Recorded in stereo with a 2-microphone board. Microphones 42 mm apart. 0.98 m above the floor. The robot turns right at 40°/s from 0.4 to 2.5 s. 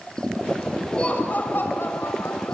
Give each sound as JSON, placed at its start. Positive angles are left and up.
{"t": 0.9, "sound": "laughter", "azimuth_deg": 25, "distance_m": 6.5}